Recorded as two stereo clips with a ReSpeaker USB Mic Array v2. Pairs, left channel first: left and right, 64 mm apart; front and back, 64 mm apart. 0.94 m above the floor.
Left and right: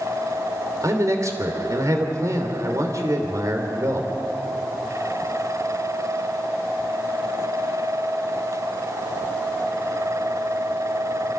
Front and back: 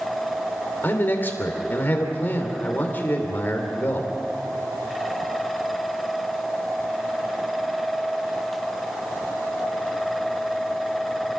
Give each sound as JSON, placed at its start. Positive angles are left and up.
{"t": 0.8, "sound": "a man speaking", "azimuth_deg": -60, "distance_m": 3.0}